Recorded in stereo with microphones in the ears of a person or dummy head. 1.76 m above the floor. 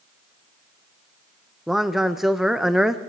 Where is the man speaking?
Centre (ahead or behind), 0.6 m.